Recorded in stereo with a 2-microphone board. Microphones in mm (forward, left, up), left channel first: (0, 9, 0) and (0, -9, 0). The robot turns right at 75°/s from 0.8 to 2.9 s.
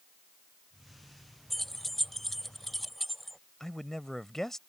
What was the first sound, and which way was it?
Keys jangling, 15° left (ahead or behind).